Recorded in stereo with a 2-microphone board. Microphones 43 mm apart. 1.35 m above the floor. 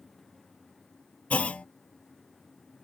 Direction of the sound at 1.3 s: 35° left (ahead or behind).